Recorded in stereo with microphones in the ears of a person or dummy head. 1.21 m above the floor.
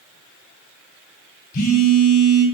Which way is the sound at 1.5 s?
50° left (ahead or behind).